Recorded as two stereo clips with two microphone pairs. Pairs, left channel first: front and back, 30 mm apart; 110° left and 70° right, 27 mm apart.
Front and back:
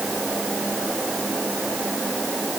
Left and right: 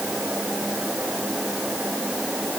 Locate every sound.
Only background noise.